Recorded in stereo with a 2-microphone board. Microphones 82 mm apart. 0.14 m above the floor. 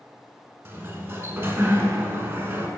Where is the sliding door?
30° right (ahead or behind), 0.6 m.